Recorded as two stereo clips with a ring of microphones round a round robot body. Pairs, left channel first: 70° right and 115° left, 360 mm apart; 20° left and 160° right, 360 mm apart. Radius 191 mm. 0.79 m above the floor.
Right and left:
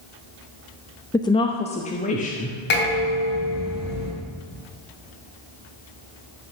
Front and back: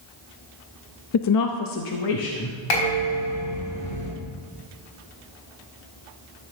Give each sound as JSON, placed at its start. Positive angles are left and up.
{"t": 1.1, "sound": "a woman speaking", "azimuth_deg": 10, "distance_m": 0.7}
{"t": 2.7, "sound": "dishes clattering", "azimuth_deg": -5, "distance_m": 4.5}